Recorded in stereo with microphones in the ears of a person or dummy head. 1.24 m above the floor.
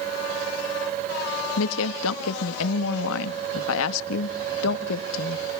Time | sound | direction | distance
1.6 | a woman speaking | 75° left (ahead or behind) | 1.7 m